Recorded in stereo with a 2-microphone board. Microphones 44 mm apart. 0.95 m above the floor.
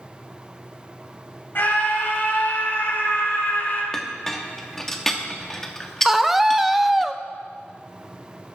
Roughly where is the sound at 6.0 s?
Centre.